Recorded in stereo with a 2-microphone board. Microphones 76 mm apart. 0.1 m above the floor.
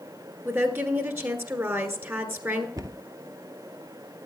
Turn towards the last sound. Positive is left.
turn(degrees=-55)  # may be behind; listen again after turning